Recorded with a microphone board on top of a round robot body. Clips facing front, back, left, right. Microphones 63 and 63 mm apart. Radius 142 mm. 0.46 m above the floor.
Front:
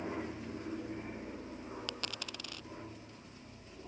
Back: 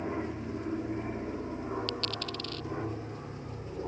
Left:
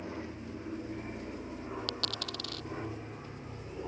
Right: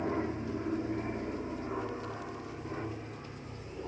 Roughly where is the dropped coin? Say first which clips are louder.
Back 8 dB, right 1 dB; left.